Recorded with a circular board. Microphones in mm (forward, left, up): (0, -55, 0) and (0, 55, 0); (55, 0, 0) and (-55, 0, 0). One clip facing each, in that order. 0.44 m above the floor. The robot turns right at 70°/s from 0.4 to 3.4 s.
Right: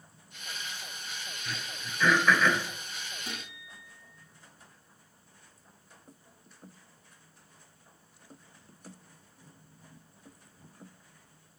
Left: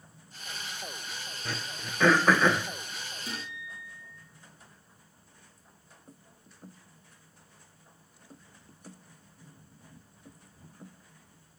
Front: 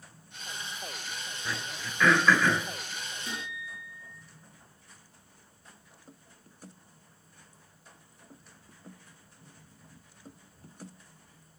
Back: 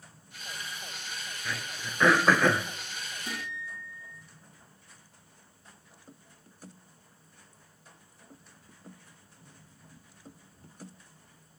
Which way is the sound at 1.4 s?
80° left.